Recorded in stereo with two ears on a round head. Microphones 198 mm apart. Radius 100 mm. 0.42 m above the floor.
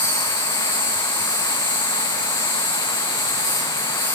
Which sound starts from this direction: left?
An insect, at 0.0 s.